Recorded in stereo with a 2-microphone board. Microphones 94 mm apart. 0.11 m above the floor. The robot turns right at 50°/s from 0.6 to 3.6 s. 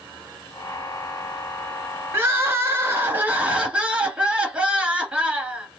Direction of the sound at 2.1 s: 30° right (ahead or behind).